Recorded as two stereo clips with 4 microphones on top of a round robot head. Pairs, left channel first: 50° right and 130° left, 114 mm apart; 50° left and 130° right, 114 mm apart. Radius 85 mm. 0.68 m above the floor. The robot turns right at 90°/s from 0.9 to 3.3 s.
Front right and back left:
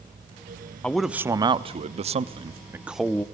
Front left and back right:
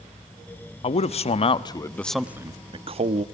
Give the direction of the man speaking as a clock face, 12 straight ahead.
11 o'clock.